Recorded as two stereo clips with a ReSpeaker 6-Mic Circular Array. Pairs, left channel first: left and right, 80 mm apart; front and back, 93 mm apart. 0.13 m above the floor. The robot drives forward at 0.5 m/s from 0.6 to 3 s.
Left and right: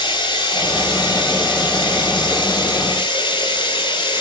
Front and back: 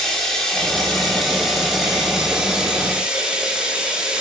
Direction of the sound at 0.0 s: 85° left.